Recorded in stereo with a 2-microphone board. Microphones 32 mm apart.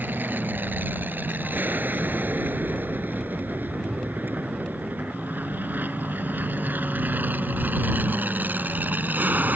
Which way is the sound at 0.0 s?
75° right (ahead or behind).